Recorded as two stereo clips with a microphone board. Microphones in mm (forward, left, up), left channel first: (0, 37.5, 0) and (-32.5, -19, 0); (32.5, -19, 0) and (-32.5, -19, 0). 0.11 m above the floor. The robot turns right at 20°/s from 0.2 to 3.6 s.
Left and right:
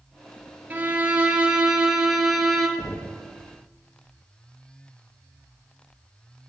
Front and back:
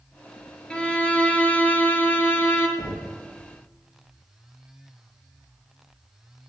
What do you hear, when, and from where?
0.7 s a violin: 70° right, 1.2 m; by 2.7 s 30° right, 1.2 m
2.8 s knocking: 70° left, 2 m; by 3.2 s 80° left, 2 m